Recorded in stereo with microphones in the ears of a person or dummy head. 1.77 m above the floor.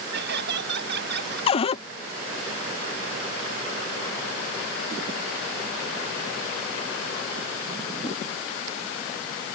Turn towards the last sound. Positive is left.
turn(degrees=40)  # may be behind; listen again after turning